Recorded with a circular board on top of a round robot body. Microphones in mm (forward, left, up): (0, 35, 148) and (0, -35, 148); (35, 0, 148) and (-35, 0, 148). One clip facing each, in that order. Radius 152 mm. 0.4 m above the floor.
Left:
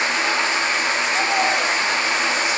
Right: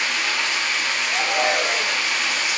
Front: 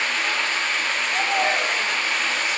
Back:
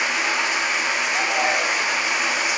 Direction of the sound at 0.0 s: 120° left.